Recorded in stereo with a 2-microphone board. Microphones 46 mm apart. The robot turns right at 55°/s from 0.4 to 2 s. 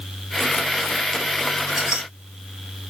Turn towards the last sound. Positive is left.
turn(degrees=-25)  # may be behind; listen again after turning